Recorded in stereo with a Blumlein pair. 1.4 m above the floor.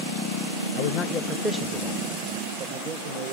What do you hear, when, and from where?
0.8 s a man speaking: 45° left, 0.7 m; by 3.3 s 50° right, 1.6 m